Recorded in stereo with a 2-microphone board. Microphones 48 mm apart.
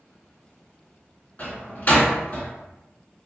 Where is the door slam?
40° left (ahead or behind), 1.4 m.